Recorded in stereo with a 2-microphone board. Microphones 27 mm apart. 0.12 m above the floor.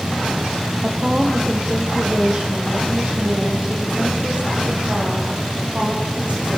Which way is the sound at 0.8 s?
15° right (ahead or behind).